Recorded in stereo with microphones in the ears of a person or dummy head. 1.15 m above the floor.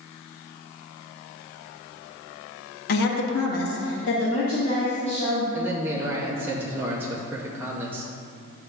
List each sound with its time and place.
2.9 s a woman speaking: 50° left (ahead or behind), 1.4 m; by 5.4 s 35° left (ahead or behind), 2.5 m
5.5 s a man speaking: 10° right (ahead or behind), 0.8 m